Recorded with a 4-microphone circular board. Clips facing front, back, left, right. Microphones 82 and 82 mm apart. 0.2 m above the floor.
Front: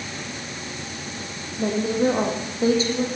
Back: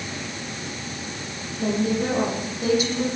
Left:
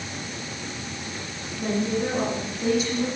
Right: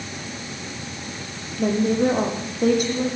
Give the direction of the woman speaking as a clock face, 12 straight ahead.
2 o'clock.